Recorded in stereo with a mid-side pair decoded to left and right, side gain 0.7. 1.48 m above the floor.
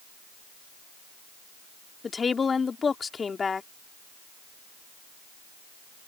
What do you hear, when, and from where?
2.0 s a woman speaking: 25° left